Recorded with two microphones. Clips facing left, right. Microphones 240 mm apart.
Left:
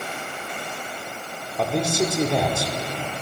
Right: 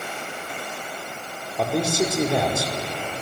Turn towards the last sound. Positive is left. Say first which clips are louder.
# even
turn(degrees=-5)  # may be behind; listen again after turning